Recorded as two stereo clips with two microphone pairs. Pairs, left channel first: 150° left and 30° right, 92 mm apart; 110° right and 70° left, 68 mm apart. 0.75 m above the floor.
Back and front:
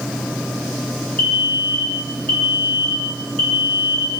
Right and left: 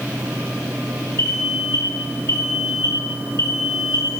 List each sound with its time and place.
1.2 s an alarm: 145° right, 2.5 m